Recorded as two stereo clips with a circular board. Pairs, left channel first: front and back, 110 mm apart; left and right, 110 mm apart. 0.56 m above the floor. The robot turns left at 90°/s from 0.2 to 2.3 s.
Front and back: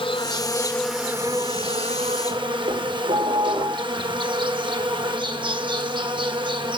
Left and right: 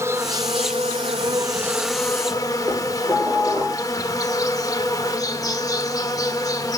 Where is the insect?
30° right, 1.1 m; by 6.8 s 145° left, 1.1 m.